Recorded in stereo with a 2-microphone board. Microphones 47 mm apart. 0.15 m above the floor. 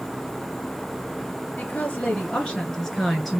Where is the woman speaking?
40° left (ahead or behind), 2.0 m; by 3.4 s centre (ahead or behind), 1.9 m.